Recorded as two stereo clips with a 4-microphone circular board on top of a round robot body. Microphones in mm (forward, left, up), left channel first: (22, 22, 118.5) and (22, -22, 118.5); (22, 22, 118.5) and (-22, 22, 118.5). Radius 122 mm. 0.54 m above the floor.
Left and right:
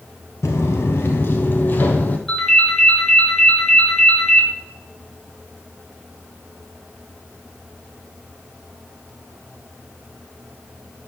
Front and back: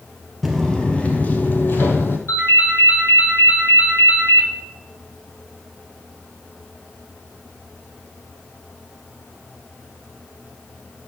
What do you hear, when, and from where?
0.4 s footsteps: 95° left, 0.6 m; by 2.2 s 35° left, 1.2 m
2.3 s a ringtone: 5° left, 5 m